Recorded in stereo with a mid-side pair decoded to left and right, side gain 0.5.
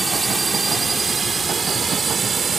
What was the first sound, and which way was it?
A drone, 15° right.